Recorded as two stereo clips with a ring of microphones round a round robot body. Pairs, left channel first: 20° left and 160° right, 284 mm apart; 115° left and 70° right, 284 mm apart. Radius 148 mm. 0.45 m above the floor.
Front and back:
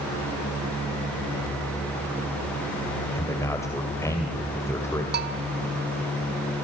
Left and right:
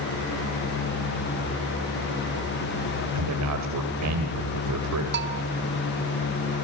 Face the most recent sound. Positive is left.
turn(degrees=-110)